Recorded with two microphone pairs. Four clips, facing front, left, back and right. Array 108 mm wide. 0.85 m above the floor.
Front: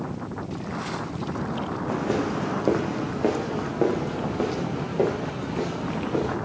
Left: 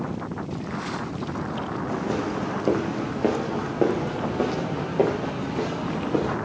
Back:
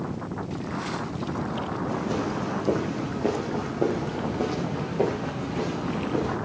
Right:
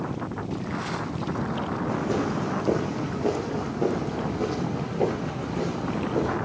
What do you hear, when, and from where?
1.9 s footsteps: 10° left, 2.5 m; by 6.3 s 65° left, 6 m